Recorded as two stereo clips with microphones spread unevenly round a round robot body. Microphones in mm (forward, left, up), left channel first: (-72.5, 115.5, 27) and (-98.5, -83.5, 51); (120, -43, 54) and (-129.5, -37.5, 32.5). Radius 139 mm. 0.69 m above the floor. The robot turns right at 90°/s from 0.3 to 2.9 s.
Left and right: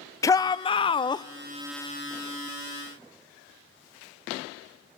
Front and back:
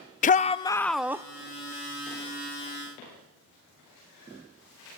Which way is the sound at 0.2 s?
35° left.